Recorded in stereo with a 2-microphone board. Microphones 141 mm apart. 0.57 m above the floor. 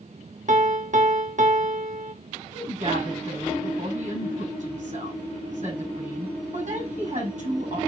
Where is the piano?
60° right (ahead or behind), 0.5 m.